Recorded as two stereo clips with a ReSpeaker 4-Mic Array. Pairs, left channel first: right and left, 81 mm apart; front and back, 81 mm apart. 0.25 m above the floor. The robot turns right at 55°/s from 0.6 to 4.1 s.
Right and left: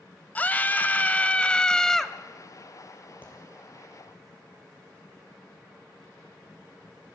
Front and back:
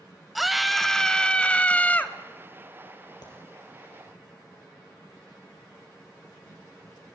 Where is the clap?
25° right, 6 m; by 3.3 s 20° right, 6 m.